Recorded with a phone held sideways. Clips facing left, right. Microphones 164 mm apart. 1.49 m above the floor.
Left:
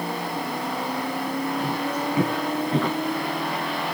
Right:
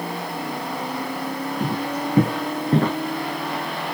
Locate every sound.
1.6 s footsteps: 55° right (ahead or behind), 5 m; by 3.0 s 50° right (ahead or behind), 5.5 m